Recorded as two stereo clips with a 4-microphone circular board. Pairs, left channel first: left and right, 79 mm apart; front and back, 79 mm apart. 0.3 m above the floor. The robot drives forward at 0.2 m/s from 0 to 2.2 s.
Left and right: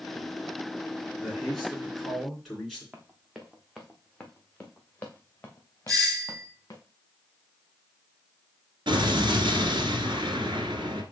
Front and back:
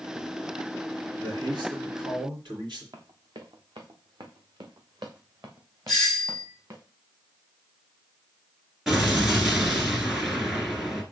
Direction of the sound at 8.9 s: 95° right.